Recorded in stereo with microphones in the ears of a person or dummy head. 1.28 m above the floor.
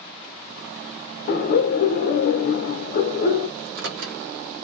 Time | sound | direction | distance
1.3 | laughter | 50° left (ahead or behind) | 0.7 m
3.6 | a microwave | 75° right (ahead or behind) | 1.0 m